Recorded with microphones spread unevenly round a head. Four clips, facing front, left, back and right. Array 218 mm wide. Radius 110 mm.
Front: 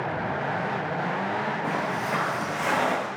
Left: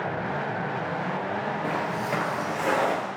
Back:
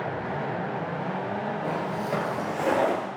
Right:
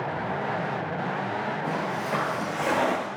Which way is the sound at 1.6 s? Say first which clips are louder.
Left 1 dB, front 1 dB; 80° left.